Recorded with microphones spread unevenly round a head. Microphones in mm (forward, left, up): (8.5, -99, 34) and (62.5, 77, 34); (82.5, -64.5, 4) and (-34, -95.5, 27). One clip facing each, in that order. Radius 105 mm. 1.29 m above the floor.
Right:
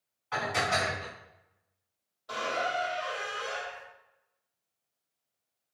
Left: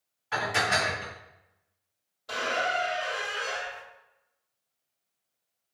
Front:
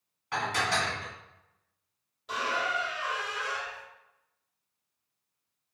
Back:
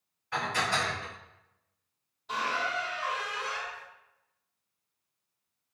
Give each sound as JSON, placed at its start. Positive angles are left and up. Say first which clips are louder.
{"t": 0.3, "sound": "dishes clattering", "louder": "left 1 dB, front 1 dB", "azimuth_deg": 5, "distance_m": 1.4}
{"t": 2.3, "sound": "a squeak", "louder": "left 2 dB, front 1 dB", "azimuth_deg": 25, "distance_m": 1.7}